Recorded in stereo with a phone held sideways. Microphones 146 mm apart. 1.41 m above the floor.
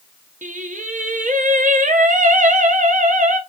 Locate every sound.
0.4 s singing: 60° right (ahead or behind), 0.5 m